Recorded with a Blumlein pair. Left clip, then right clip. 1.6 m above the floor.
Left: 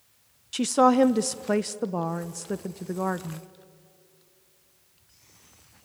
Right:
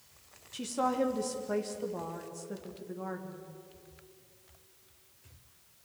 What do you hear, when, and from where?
0.5 s a woman speaking: 60° left, 0.9 m